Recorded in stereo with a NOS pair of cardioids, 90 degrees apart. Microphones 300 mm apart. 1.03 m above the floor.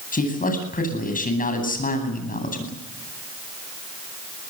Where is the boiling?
No boiling in this recording.